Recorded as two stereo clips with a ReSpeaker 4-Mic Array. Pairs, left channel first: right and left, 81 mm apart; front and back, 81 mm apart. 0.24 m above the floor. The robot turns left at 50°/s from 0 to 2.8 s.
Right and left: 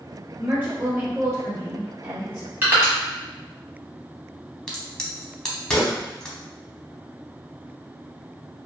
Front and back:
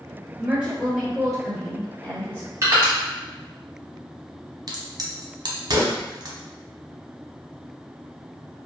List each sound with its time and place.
0.4 s a woman speaking: 130° left, 1.6 m; by 2.5 s 25° left, 1.6 m
2.6 s crushing: 145° left, 1.1 m; by 2.9 s 135° left, 1.1 m
4.7 s a crack: 170° right, 0.6 m